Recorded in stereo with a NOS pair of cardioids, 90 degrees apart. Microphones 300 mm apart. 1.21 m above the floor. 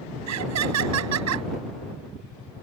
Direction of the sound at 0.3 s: 70° right.